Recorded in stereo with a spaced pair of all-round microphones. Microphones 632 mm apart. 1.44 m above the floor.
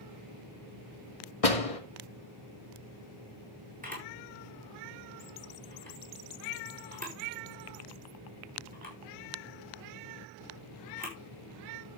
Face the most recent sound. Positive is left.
turn(degrees=-15)  # may be behind; listen again after turning